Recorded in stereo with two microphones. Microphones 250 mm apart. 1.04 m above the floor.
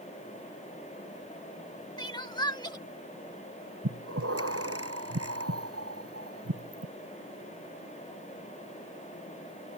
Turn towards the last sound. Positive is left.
turn(degrees=-65)  # may be behind; listen again after turning